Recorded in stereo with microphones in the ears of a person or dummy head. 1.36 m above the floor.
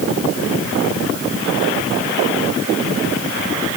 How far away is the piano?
I don't hear a piano.